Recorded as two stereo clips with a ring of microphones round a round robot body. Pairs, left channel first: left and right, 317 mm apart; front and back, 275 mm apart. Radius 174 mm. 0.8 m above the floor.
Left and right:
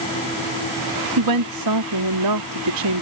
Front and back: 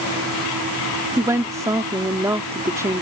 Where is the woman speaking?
100° right.